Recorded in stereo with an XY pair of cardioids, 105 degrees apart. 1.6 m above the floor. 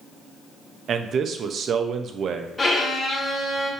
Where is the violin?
25° left, 1.9 m.